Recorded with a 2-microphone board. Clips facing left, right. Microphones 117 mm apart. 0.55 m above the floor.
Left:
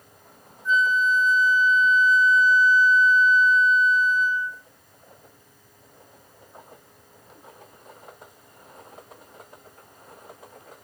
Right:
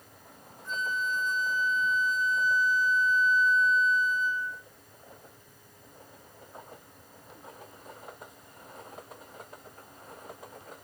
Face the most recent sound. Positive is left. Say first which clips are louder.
# left 11 dB
turn(degrees=-60)  # may be behind; listen again after turning